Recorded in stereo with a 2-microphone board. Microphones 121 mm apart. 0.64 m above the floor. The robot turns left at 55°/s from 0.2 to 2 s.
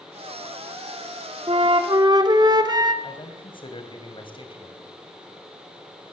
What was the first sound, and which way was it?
A flute, 55° right (ahead or behind).